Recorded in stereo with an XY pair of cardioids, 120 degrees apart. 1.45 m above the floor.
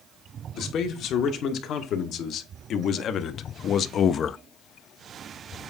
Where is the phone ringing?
No phone ringing in this recording.